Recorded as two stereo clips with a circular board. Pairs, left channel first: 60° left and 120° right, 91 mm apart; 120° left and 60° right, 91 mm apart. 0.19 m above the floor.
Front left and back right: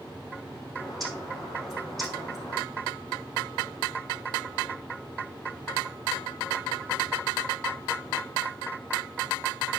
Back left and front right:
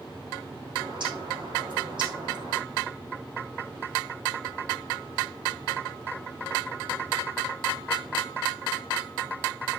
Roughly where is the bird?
Ahead right.